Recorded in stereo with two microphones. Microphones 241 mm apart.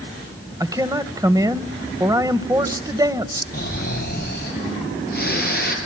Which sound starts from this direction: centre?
A man speaking, at 0.6 s.